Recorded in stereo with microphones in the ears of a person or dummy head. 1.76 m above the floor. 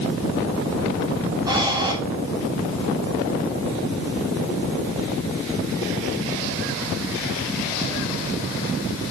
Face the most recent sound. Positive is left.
turn(degrees=-20)  # may be behind; listen again after turning